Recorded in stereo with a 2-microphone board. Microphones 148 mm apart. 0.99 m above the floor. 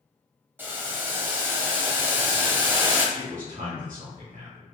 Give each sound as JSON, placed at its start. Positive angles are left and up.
{"t": 0.6, "sound": "boiling", "side_deg": -15, "distance_m": 0.8}
{"t": 3.1, "sound": "a man speaking", "side_deg": -60, "distance_m": 0.9}